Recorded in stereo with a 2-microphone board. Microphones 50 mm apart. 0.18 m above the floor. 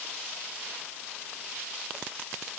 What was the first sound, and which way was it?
Only background noise.